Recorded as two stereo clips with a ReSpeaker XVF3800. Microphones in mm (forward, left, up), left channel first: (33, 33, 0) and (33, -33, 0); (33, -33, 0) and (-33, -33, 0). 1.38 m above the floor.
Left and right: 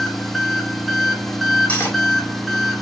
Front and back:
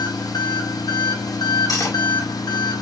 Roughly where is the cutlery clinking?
Ahead left.